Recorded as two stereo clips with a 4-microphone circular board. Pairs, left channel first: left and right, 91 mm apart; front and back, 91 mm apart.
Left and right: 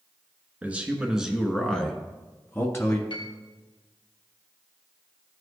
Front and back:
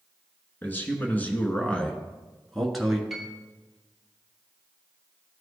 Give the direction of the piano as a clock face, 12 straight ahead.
9 o'clock.